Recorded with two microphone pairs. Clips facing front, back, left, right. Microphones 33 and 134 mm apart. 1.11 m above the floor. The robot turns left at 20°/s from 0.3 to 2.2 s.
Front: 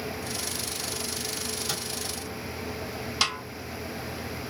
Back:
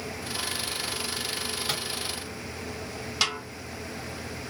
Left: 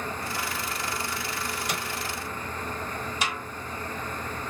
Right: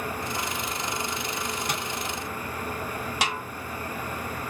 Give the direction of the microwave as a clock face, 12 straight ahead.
4 o'clock.